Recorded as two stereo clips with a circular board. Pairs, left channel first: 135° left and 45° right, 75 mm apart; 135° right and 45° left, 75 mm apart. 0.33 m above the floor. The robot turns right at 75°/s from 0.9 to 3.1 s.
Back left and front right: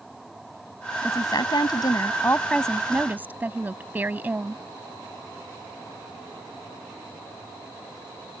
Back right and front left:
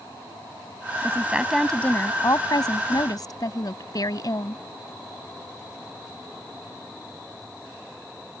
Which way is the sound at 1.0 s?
95° left.